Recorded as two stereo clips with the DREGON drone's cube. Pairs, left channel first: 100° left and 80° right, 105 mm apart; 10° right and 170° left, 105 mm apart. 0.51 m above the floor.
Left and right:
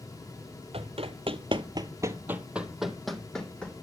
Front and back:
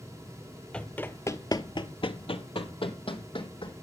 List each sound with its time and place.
0.7 s running footsteps: 90° right, 1.0 m; by 3.7 s 20° left, 1.8 m